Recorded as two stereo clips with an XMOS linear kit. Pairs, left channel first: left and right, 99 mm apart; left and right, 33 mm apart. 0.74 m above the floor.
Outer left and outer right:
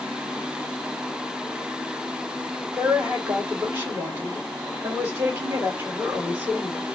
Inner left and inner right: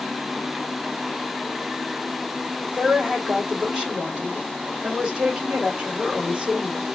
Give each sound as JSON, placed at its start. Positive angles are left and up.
{"t": 2.7, "sound": "a woman speaking", "side_deg": -20, "distance_m": 2.5}